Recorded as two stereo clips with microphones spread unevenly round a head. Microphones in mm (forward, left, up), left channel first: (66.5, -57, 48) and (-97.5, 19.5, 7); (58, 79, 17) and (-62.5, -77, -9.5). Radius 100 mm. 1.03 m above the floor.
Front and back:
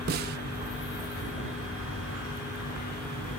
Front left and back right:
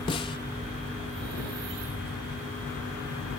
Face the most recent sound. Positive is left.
turn(degrees=120)